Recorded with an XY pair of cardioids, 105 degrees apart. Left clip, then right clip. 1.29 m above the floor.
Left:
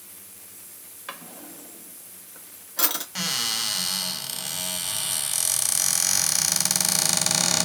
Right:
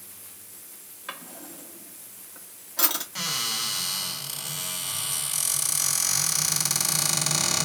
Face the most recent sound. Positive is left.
turn(degrees=25)